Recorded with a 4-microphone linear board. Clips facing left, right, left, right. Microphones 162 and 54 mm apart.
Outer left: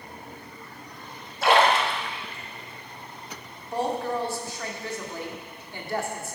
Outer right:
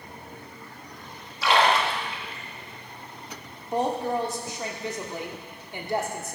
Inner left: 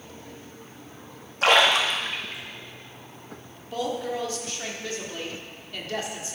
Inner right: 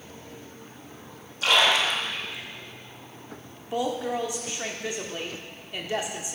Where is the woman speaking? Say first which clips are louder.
Outer right 2 dB, inner right 1 dB; 20° right (ahead or behind), 1.7 m.